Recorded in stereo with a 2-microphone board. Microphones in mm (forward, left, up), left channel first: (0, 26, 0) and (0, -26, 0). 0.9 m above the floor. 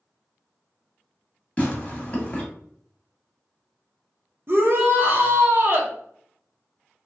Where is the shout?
50° right (ahead or behind), 0.7 m.